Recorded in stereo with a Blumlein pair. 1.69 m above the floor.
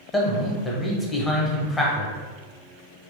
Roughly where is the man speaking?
Ahead.